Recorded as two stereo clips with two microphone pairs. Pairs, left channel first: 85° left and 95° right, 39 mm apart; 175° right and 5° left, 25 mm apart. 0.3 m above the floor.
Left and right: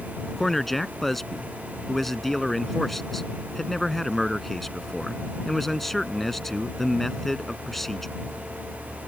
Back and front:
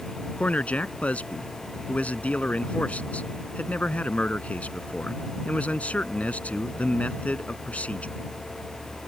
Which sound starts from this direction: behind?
A man speaking, at 0.4 s.